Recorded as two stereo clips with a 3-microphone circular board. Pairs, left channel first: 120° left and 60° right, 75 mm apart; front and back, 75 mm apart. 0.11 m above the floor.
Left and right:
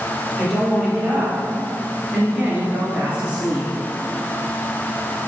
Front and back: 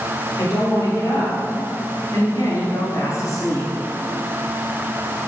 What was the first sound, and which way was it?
A woman speaking, 30° left.